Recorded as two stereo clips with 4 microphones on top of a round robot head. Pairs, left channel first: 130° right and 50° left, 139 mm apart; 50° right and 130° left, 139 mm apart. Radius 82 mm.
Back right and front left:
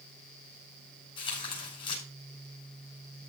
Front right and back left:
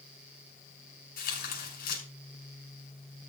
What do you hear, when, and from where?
1.2 s tearing paper: 70° right, 5.5 m